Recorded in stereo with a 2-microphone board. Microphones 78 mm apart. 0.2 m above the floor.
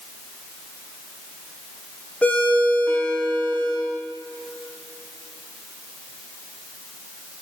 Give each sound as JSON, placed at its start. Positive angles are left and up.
{"t": 2.2, "sound": "a ringtone", "side_deg": 20, "distance_m": 9.0}